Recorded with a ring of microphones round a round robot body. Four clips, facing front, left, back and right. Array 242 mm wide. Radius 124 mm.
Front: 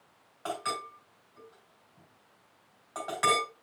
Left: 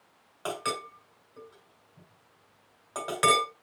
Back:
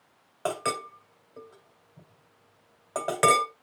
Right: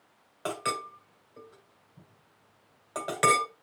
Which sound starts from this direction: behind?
A clink, at 0.5 s.